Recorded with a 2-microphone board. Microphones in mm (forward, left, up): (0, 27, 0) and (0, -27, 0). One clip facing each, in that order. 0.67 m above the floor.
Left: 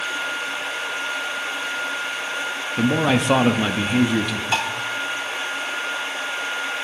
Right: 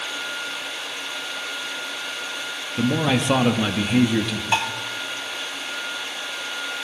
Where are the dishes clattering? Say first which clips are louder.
Right 1 dB; 10° right (ahead or behind), 3 m.